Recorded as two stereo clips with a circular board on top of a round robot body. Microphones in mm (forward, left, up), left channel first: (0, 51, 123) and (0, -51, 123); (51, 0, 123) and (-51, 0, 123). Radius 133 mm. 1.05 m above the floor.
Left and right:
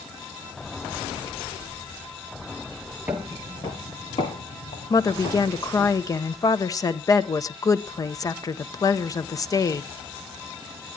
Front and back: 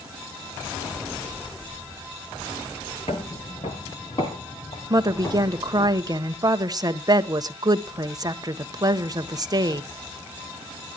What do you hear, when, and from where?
3.1 s footsteps: 25° right, 1.1 m; by 5.9 s 60° left, 4.5 m
4.9 s a woman speaking: 135° left, 1.1 m